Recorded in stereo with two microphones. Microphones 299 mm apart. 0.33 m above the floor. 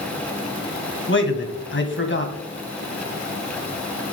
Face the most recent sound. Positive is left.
turn(degrees=40)  # may be behind; listen again after turning